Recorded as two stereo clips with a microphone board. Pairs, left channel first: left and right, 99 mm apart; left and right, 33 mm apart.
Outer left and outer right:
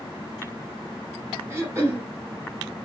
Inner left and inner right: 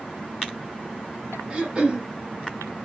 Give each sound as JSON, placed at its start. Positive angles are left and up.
{"t": 1.5, "sound": "throat clearing", "side_deg": -25, "distance_m": 1.0}